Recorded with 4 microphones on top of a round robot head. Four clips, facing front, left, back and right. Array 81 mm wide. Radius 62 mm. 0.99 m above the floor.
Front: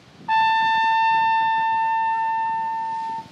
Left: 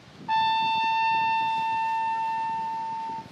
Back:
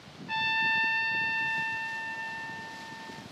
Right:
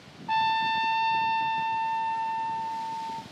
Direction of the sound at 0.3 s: Straight ahead.